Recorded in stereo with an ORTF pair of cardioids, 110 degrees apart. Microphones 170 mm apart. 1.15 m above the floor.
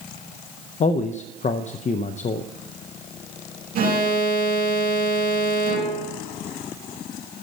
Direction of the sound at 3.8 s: 60° right.